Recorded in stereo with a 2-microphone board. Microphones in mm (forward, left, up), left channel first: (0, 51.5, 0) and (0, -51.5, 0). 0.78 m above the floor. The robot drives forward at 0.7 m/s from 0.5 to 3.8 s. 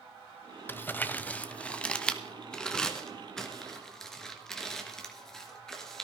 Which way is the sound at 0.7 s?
20° left (ahead or behind).